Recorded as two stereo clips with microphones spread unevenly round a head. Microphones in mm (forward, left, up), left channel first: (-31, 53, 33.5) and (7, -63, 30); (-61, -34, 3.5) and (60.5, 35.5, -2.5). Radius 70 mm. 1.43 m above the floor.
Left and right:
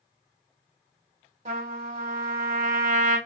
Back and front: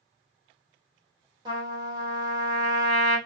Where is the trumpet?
25° right, 2.0 m.